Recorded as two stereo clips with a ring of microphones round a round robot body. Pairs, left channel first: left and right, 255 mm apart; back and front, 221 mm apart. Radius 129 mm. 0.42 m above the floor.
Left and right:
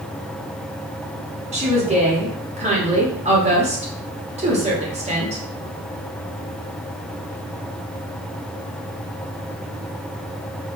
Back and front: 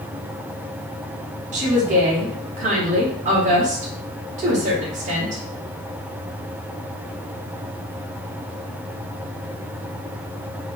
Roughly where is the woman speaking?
Ahead right.